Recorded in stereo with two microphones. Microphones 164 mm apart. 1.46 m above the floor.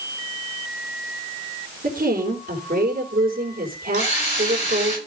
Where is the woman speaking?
65° right (ahead or behind), 4 m.